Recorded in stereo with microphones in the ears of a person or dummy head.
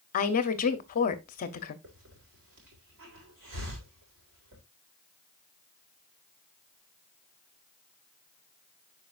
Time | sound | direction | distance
0.1 | a woman speaking | 40° left (ahead or behind) | 0.8 m
1.8 | a hiss | 65° right (ahead or behind) | 3.5 m